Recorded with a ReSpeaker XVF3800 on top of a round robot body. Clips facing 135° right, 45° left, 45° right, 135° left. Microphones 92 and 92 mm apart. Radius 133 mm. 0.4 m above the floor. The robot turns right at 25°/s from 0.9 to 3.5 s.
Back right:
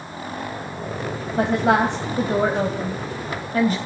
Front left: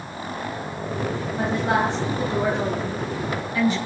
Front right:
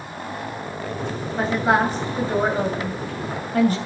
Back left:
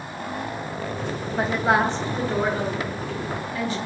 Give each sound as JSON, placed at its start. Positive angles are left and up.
{"t": 1.4, "sound": "a woman speaking", "azimuth_deg": -140, "distance_m": 3.0}